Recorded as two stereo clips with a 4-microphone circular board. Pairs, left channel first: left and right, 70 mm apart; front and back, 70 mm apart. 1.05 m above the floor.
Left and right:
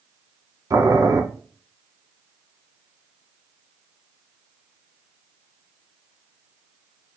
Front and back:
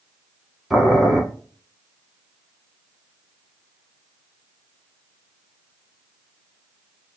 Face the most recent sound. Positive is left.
turn(degrees=-95)